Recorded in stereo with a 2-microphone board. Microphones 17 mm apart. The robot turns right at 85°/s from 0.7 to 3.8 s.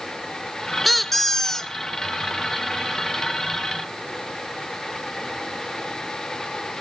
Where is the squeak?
5° left (ahead or behind), 0.5 m; by 1.7 s 30° left (ahead or behind), 0.5 m.